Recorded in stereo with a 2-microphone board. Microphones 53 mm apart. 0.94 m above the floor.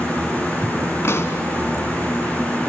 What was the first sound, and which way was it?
A pop, 50° left (ahead or behind).